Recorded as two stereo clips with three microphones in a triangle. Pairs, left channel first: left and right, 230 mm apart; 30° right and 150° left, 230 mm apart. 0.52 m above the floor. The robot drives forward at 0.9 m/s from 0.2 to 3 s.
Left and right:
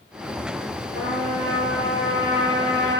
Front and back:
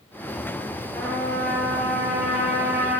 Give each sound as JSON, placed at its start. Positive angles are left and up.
{"t": 0.9, "sound": "a trumpet", "azimuth_deg": -115, "distance_m": 6.5}